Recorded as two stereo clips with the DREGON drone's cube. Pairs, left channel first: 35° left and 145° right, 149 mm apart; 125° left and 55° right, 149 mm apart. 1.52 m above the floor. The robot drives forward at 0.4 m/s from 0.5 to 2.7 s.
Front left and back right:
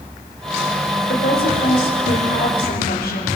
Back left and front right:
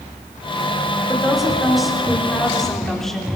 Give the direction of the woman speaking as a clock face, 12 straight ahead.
11 o'clock.